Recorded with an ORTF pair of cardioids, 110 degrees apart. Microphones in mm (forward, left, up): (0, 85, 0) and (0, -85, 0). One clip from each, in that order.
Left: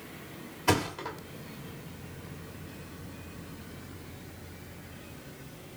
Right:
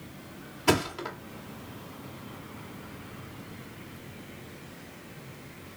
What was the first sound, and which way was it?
A thud, 25° right.